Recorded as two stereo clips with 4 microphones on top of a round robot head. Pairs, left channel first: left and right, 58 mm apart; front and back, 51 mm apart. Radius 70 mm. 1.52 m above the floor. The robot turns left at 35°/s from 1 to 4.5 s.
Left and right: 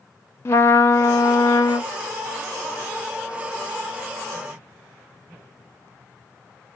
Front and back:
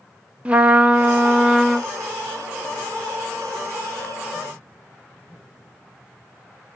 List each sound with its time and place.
0.5 s a trumpet: 115° left, 0.6 m; by 1.9 s 85° left, 0.6 m